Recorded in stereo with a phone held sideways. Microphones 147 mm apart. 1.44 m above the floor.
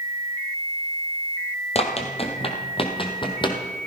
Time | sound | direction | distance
1.8 | running footsteps | 45° left (ahead or behind) | 2.0 m